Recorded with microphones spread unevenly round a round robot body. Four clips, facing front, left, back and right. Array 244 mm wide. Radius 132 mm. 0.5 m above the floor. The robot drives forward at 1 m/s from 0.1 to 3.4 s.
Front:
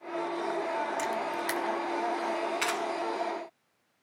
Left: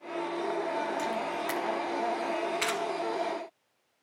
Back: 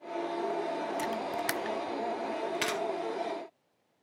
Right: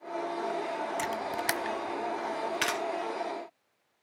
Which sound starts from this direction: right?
A camera shutter, at 1.0 s.